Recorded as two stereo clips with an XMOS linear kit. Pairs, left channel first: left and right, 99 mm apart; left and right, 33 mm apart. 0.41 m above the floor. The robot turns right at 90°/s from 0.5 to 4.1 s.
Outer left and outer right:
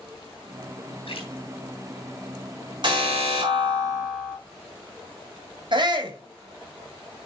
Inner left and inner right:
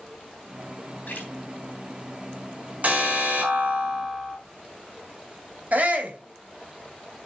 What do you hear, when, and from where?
1.1 s a splash: 65° left (ahead or behind), 3.5 m; by 1.3 s 60° left (ahead or behind), 3.5 m
2.8 s an alarm: 130° right, 5.5 m; by 4.4 s 15° right, 5.5 m
5.7 s a shout: 50° right (ahead or behind), 2 m